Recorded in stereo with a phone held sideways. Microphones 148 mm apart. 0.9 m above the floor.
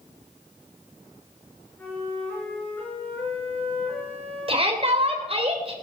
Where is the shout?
40° right (ahead or behind), 3 m.